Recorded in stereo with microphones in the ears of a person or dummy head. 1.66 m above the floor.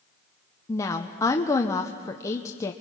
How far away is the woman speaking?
About 0.9 m.